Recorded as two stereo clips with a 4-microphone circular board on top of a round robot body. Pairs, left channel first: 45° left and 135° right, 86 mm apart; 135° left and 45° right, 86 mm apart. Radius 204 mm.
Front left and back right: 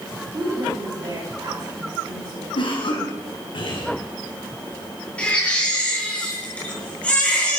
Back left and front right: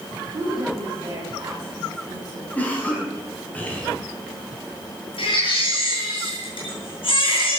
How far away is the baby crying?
About 6.5 m.